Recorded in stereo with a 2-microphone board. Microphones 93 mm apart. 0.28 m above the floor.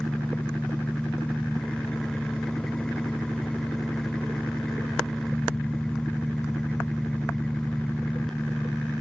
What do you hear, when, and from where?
0.0 s an engine running: 5° left (ahead or behind)